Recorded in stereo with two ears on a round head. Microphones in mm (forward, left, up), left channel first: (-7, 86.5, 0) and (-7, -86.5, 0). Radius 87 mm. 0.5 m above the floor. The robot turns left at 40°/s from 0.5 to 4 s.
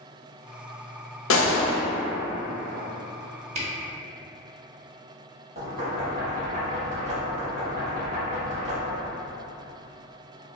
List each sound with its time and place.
1.3 s a gunshot: 75° left (ahead or behind), 0.7 m; by 1.8 s 65° left (ahead or behind), 0.7 m
3.5 s a camera shutter: 35° right (ahead or behind), 0.7 m; by 3.7 s 40° right (ahead or behind), 0.7 m
5.5 s knocking: 45° right (ahead or behind), 1.9 m